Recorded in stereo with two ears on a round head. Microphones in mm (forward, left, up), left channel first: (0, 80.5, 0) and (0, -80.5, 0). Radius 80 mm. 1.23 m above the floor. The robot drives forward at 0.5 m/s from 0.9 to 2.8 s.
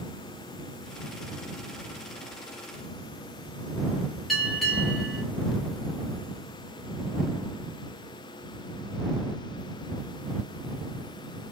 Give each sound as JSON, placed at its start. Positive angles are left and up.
{"t": 4.3, "sound": "a bell", "side_deg": 0, "distance_m": 1.6}